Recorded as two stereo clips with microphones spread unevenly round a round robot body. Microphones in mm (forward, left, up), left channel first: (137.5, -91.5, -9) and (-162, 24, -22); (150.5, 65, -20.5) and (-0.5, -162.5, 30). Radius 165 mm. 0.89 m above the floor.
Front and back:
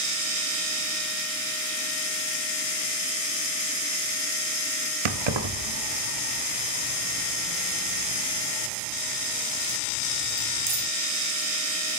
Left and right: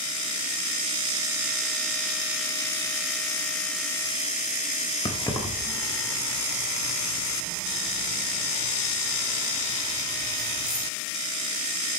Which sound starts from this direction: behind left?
Keys jangling, at 5.0 s.